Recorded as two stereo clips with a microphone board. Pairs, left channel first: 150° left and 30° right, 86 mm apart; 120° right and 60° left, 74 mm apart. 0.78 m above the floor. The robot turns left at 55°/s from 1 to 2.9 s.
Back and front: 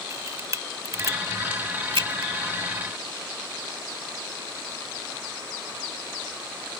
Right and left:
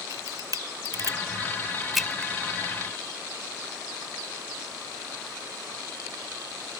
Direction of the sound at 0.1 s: 25° left.